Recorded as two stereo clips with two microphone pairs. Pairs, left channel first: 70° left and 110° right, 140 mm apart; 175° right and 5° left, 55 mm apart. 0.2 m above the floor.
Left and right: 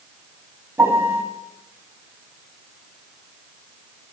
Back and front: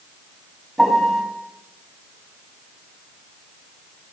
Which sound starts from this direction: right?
A piano, at 0.8 s.